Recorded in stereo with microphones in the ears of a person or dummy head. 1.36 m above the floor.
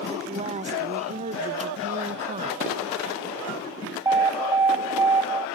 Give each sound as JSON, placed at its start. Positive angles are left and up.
{"t": 0.1, "sound": "a woman speaking", "side_deg": -35, "distance_m": 1.7}
{"t": 2.6, "sound": "dishes clattering", "side_deg": -40, "distance_m": 6.5}
{"t": 4.0, "sound": "an alarm", "side_deg": -15, "distance_m": 0.6}